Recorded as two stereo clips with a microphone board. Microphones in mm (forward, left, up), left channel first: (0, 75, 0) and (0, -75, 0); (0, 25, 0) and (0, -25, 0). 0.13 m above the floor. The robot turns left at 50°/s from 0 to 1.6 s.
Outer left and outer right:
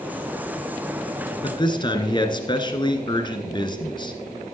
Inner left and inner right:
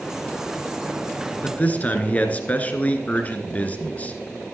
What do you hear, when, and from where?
1.4 s a man speaking: 35° left (ahead or behind), 1.5 m; by 4.2 s 30° left (ahead or behind), 1.5 m